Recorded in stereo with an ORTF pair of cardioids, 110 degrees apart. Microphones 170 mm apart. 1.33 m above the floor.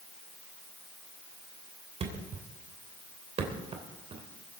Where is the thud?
40° right, 3 m.